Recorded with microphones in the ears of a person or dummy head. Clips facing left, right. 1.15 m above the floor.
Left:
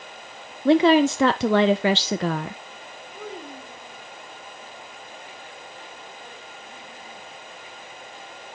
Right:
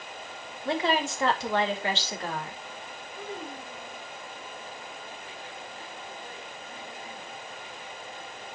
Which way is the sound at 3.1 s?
50° left (ahead or behind).